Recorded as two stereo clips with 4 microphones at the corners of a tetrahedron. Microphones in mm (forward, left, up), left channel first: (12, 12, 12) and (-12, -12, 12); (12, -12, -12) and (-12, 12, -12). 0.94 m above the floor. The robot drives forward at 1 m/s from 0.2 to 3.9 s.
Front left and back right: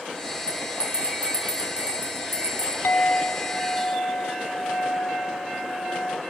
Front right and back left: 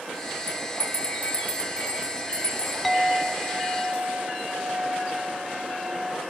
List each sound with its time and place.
0.5 s a bell: 75° right, 3.5 m; by 2.7 s 115° right, 3.5 m
2.8 s a clink: 45° left, 1.3 m; by 6.2 s 100° left, 1.0 m